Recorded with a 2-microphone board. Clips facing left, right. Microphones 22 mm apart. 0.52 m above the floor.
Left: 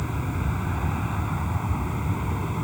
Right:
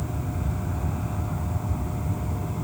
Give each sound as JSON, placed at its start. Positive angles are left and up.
{"t": 0.0, "sound": "an aircraft", "side_deg": 40}